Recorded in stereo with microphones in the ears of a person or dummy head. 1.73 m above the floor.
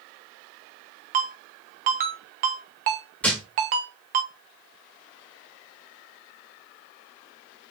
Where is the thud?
5° left (ahead or behind), 1.6 m.